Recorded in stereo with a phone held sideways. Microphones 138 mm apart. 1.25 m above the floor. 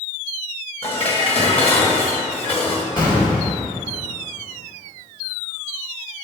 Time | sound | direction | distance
0.8 | dishes clattering | 45° left (ahead or behind) | 1.5 m
3.0 | an explosion | 30° left (ahead or behind) | 3.5 m